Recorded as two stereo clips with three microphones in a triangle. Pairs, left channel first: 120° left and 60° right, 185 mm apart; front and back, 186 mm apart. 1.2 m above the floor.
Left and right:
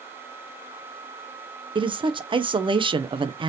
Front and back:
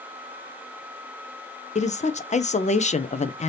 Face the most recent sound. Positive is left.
turn(degrees=-15)